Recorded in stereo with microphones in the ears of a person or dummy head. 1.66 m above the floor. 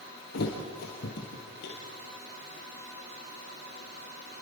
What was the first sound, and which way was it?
A thud, 55° left (ahead or behind).